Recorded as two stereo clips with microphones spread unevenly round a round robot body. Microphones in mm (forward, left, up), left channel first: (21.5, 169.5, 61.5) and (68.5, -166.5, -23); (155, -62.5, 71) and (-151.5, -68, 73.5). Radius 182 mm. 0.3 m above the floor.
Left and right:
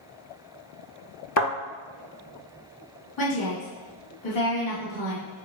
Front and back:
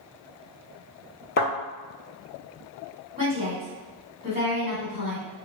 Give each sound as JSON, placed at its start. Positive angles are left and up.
{"t": 1.4, "sound": "a thud", "azimuth_deg": 65, "distance_m": 0.7}
{"t": 3.2, "sound": "a woman speaking", "azimuth_deg": 120, "distance_m": 1.4}